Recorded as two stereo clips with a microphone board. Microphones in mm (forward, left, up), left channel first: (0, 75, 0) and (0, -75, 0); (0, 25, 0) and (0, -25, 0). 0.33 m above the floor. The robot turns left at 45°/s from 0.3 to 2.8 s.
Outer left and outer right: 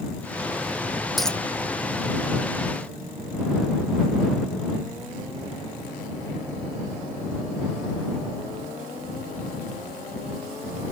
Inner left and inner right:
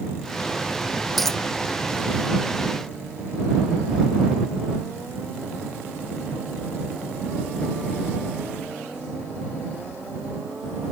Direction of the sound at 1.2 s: Centre (ahead or behind).